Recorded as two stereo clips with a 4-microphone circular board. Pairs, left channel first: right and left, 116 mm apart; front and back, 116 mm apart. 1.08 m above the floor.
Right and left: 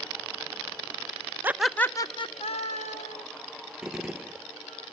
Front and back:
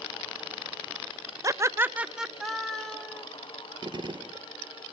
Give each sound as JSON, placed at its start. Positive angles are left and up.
{"t": 1.4, "sound": "laughter", "azimuth_deg": 150, "distance_m": 0.7}
{"t": 3.8, "sound": "a gunshot", "azimuth_deg": 170, "distance_m": 0.5}